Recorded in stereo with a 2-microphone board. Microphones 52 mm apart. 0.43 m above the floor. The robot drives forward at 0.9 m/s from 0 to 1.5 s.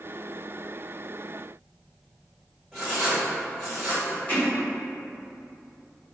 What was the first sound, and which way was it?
Writing, centre (ahead or behind).